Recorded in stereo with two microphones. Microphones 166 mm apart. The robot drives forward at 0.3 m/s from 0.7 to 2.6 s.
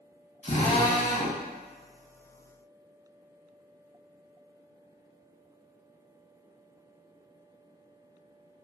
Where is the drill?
45° left (ahead or behind), 0.8 m.